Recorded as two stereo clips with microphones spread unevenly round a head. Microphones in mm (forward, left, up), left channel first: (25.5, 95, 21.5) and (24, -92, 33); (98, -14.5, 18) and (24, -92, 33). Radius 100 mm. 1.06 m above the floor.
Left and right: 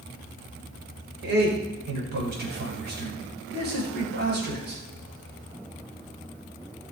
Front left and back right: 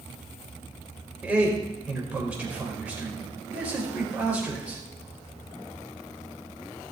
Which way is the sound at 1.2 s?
55° right.